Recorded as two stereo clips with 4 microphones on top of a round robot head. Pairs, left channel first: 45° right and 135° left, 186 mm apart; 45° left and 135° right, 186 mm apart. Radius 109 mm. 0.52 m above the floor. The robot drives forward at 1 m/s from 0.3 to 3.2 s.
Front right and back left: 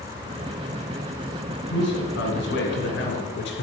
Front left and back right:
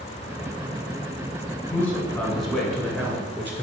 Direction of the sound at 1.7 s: 30° right.